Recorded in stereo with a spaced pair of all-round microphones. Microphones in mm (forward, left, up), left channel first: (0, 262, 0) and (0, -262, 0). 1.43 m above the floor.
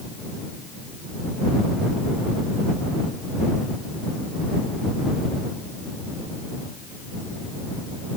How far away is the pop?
No pop in this recording.